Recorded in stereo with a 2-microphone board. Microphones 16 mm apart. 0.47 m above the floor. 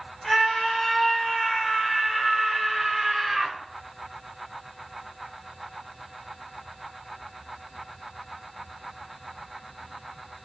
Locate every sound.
0.2 s a scream: 10° left (ahead or behind), 4 m; by 3.6 s 35° right (ahead or behind), 1.8 m